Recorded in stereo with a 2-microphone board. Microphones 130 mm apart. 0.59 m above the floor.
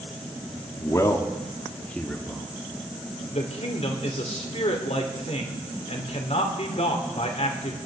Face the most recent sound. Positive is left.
turn(degrees=55)  # may be behind; listen again after turning